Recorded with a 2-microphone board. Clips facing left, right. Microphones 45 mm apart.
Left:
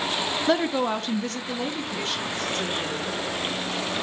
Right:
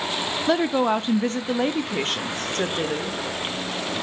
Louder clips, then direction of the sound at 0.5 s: Right 3 dB; centre (ahead or behind).